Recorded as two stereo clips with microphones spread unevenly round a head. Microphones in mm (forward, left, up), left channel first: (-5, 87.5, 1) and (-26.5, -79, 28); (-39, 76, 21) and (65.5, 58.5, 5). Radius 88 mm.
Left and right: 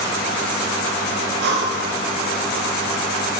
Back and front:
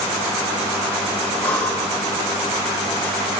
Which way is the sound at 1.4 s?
115° right.